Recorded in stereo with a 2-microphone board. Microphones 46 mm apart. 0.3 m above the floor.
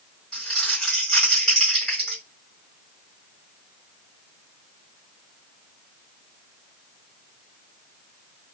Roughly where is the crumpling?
Centre.